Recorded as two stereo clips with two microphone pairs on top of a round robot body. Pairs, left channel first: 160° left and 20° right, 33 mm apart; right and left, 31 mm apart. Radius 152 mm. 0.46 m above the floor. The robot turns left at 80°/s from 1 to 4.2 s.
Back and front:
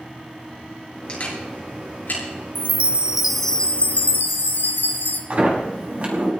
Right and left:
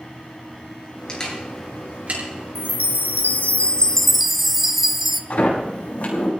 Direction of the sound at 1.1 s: 150° right.